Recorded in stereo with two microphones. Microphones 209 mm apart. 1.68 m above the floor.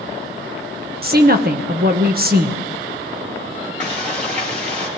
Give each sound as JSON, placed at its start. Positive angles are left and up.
{"t": 1.0, "sound": "a woman speaking", "side_deg": -45, "distance_m": 1.2}
{"t": 3.8, "sound": "frying", "side_deg": -35, "distance_m": 4.5}